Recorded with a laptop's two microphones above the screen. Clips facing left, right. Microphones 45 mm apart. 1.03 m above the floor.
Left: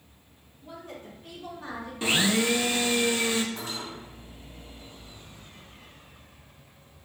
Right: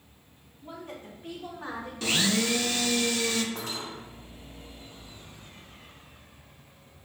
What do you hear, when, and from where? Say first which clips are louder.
0.6 s a woman speaking: right 1 dB; 45° right (ahead or behind), 2 m; by 1.9 s 40° right (ahead or behind), 3 m
2.0 s a blender: left 2 dB; 20° left (ahead or behind), 0.5 m
3.5 s cutlery clinking: even; 70° right (ahead or behind), 1.6 m